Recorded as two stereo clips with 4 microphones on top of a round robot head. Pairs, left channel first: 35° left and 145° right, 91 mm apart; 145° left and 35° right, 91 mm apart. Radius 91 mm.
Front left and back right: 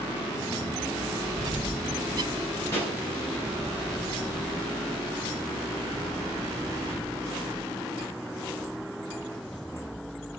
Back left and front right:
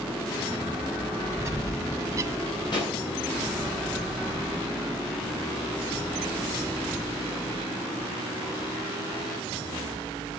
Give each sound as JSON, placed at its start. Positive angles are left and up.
{"t": 1.4, "sound": "a bird", "azimuth_deg": -90, "distance_m": 0.8}
{"t": 2.7, "sound": "a pop", "azimuth_deg": 100, "distance_m": 8.5}